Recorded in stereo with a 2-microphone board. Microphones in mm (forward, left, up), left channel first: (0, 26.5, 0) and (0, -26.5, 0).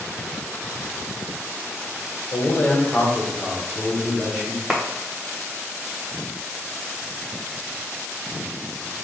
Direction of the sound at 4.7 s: 5° right (ahead or behind).